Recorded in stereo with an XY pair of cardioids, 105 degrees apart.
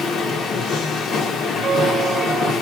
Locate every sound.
0.0 s a machine running: 70° left, 0.9 m
1.6 s a squeak: 20° right, 0.9 m